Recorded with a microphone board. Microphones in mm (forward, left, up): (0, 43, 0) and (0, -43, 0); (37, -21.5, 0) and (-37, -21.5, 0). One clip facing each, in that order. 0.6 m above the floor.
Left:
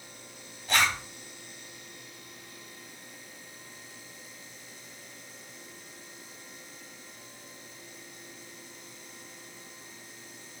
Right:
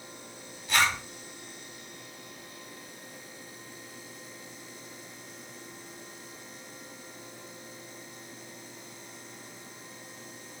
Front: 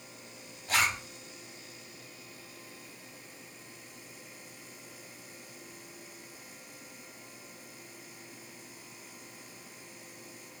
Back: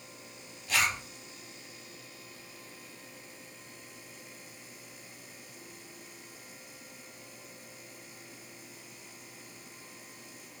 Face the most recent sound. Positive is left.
turn(degrees=50)